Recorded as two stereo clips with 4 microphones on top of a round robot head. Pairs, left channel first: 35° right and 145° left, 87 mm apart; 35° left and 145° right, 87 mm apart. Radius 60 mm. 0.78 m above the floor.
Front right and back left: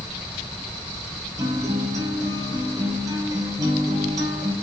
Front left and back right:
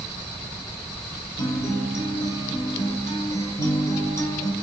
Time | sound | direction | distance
1.4 | a guitar | 95° left | 3 m